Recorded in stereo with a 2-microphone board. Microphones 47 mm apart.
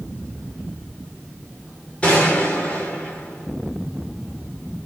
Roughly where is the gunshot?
Left.